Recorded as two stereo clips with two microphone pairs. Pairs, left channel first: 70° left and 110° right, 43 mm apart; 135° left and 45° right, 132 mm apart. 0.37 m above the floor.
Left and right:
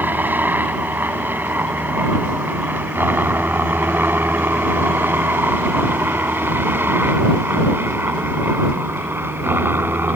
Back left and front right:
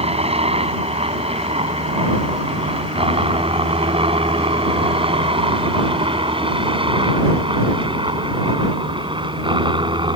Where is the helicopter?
75° right; by 10.2 s 95° right.